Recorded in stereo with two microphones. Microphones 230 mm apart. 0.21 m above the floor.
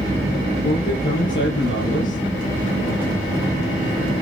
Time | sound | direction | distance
0.6 | a man speaking | 60° left (ahead or behind) | 4 m